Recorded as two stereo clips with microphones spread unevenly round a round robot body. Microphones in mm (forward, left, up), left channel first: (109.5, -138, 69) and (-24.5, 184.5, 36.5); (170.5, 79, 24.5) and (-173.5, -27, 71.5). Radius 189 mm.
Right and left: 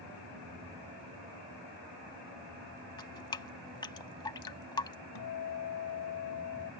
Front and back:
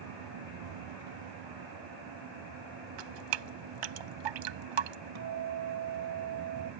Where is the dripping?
145° right.